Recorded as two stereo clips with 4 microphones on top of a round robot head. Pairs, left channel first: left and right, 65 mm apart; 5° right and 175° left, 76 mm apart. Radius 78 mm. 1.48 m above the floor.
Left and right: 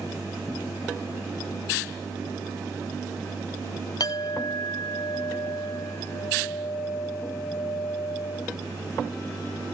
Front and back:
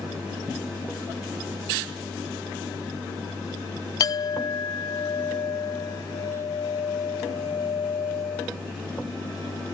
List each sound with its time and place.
4.0 s a clink: 35° left